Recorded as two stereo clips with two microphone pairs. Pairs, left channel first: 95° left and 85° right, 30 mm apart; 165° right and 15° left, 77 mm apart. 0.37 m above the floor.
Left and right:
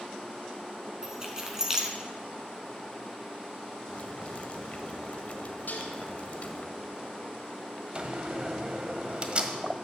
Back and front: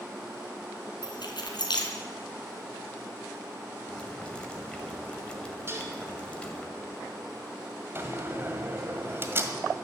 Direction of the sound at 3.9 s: 120° left.